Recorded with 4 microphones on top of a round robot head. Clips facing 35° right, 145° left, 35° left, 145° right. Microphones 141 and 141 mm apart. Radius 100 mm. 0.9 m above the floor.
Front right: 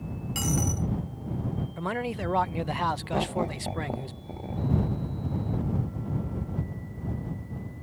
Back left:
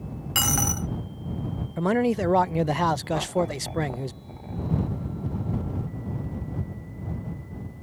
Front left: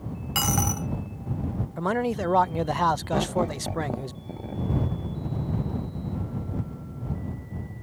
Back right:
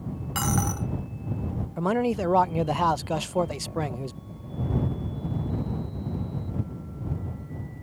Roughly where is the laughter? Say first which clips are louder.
Back left 3 dB, front left 2 dB; ahead left.